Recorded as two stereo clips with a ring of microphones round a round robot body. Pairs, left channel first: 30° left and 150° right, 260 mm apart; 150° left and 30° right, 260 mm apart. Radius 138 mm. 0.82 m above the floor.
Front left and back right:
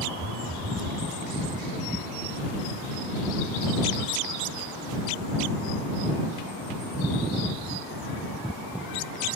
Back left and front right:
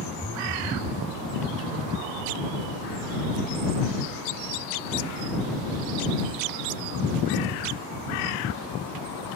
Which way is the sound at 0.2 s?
135° right.